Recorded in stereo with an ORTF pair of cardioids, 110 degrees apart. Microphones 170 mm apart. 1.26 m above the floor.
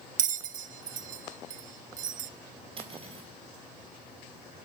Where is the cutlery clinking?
35° right, 4.5 m.